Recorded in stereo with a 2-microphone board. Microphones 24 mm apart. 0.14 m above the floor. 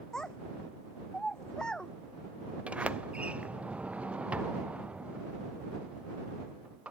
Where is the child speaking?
35° left (ahead or behind).